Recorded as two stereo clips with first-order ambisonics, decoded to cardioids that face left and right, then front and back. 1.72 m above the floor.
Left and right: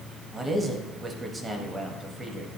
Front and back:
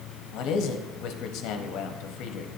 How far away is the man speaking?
About 0.7 m.